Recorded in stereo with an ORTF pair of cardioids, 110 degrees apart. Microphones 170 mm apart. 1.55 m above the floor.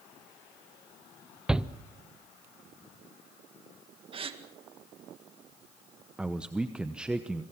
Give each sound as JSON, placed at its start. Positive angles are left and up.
{"t": 1.5, "sound": "a shout", "azimuth_deg": -5, "distance_m": 0.8}
{"t": 4.1, "sound": "a gasp", "azimuth_deg": -30, "distance_m": 2.0}
{"t": 6.2, "sound": "a man speaking", "azimuth_deg": -5, "distance_m": 0.9}